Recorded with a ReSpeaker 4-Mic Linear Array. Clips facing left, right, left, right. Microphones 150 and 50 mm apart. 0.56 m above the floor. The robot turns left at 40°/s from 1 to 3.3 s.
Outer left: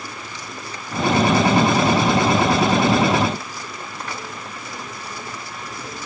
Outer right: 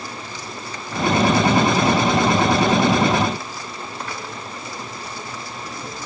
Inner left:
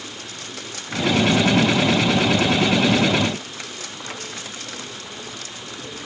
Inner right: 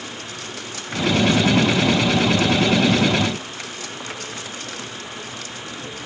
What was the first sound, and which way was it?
Only background noise.